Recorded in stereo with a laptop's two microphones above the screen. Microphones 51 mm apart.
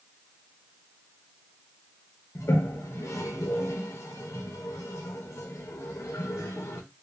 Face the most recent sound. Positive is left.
turn(degrees=65)  # may be behind; listen again after turning